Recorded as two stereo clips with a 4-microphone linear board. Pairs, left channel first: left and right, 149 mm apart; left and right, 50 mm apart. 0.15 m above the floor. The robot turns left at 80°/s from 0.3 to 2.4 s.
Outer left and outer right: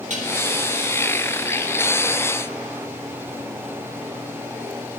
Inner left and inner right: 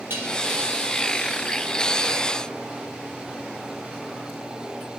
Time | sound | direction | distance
0.1 | dishes clattering | 55° right (ahead or behind) | 2.5 m